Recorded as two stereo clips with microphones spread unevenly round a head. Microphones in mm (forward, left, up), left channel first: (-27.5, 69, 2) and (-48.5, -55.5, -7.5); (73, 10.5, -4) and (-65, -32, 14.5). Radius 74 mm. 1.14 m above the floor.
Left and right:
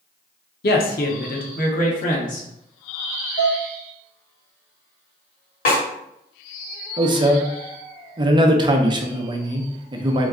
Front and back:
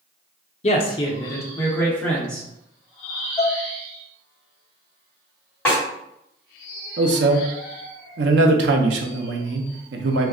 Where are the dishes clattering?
95° left, 1.7 m.